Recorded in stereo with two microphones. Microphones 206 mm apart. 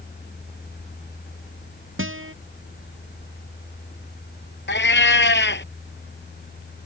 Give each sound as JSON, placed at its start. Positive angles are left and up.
{"t": 2.0, "sound": "a guitar", "side_deg": -75}
{"t": 4.7, "sound": "a cat meowing", "side_deg": 65}